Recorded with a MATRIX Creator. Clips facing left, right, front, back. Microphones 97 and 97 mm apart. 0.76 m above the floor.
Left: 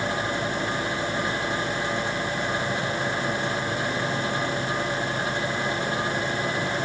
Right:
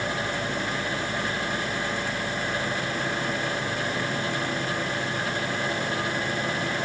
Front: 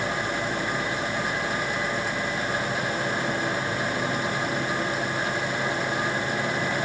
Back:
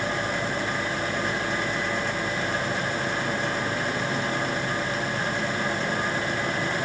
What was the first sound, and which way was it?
Only background noise.